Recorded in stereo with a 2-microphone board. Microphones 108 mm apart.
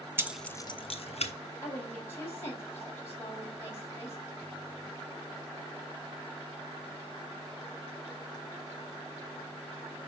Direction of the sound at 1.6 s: 25° left (ahead or behind).